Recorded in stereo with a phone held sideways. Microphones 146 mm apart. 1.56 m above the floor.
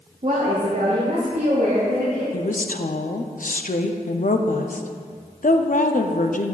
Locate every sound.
0.2 s a woman speaking: 50° right (ahead or behind), 0.8 m; by 2.2 s 85° right, 3 m
2.3 s a woman speaking: 65° left (ahead or behind), 0.5 m